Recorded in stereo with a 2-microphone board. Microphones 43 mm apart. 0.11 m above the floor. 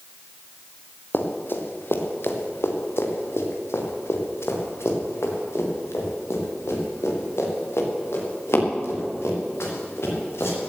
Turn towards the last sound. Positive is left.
turn(degrees=75)  # may be behind; listen again after turning